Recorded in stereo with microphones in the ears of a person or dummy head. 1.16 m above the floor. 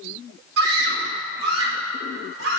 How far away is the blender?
I don't hear a blender.